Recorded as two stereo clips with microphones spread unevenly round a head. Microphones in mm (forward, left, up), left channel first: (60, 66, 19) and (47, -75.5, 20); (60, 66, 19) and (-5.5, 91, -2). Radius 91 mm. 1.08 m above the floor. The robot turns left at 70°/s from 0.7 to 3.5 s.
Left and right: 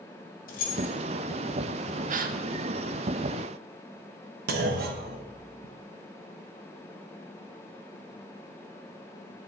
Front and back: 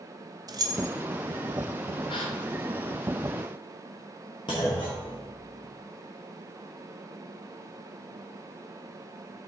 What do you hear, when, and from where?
0.5 s keys jangling: 130° left, 0.8 m; by 0.9 s 115° left, 0.8 m
2.1 s a gasp: 60° right, 0.6 m; by 2.4 s 80° right, 0.6 m
4.5 s a clunk: 85° right, 0.8 m